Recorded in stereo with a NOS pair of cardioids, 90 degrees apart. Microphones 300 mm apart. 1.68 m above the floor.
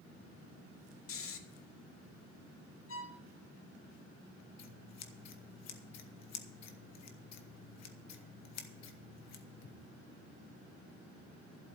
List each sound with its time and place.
1.1 s snoring: 50° left, 1.3 m
2.9 s a violin: 50° left, 1.5 m
4.6 s scissors: 70° left, 1.4 m